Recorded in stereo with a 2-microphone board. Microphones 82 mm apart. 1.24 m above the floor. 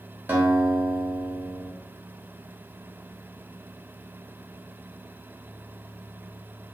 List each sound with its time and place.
0.3 s a guitar: 25° right (ahead or behind), 0.8 m